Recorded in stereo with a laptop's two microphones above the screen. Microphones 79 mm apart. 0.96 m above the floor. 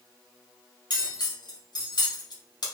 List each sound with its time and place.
0.9 s cutlery clinking: 60° left (ahead or behind), 0.6 m